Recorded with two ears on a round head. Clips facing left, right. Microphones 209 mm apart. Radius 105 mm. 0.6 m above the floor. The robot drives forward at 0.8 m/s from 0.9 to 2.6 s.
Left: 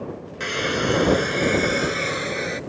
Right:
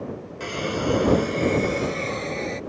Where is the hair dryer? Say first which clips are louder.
Left 1 dB; 25° left (ahead or behind); by 2.6 s 20° left (ahead or behind).